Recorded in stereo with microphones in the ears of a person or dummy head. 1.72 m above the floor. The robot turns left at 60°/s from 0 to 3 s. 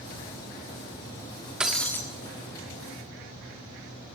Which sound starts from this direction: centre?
Breaking glass, at 1.6 s.